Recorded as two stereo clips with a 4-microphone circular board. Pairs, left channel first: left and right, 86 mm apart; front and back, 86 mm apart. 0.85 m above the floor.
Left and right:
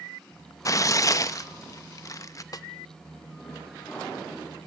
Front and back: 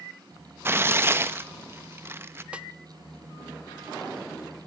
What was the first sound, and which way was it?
Tearing paper, 125° left.